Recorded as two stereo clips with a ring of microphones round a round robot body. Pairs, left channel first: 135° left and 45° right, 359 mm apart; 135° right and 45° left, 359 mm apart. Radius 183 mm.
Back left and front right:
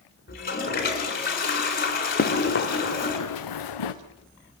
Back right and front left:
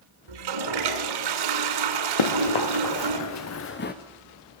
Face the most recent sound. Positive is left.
turn(degrees=160)